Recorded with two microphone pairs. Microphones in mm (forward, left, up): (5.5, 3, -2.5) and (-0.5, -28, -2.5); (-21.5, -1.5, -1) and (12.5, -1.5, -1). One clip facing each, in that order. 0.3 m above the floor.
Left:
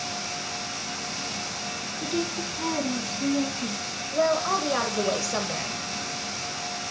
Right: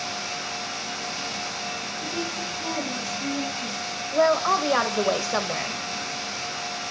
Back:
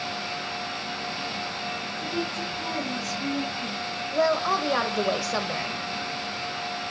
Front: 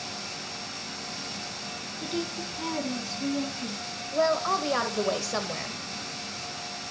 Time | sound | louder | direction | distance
2.0 | a woman speaking | left 3 dB, back 1 dB | 55° left | 2.5 m
4.1 | a woman speaking | right 3 dB, back 1 dB | 110° right | 0.9 m